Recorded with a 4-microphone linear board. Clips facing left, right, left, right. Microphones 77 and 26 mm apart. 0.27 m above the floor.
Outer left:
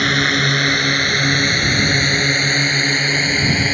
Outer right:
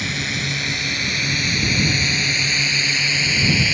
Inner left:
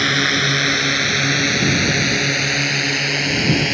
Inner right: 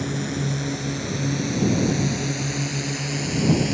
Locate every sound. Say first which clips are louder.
0.0 s a drone: outer left 9 dB, inner left 11 dB; 60° left (ahead or behind); by 3.7 s 40° left (ahead or behind)